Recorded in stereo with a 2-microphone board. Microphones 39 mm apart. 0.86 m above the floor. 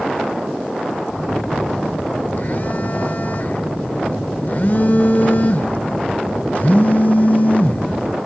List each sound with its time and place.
1.2 s a phone buzzing: 50° left (ahead or behind), 0.7 m